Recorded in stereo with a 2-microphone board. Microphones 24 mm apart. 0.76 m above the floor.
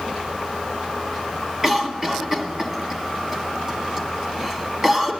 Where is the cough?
15° right (ahead or behind), 1.5 m.